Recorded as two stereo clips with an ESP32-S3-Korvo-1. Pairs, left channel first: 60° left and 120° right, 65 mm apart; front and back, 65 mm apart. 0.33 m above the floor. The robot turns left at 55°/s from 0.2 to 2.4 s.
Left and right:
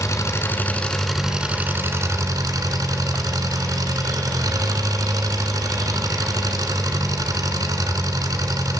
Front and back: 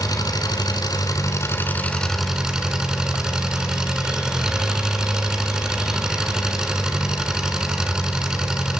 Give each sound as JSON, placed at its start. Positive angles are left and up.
{"t": 0.0, "sound": "an engine running", "azimuth_deg": 20, "distance_m": 1.9}